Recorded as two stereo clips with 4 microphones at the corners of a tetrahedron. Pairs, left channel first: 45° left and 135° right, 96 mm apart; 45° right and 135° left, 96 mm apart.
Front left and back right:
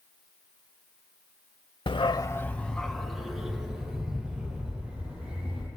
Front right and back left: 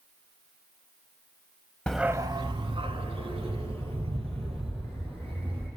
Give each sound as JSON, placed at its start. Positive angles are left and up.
{"t": 1.9, "sound": "a dog barking", "azimuth_deg": 30, "distance_m": 0.6}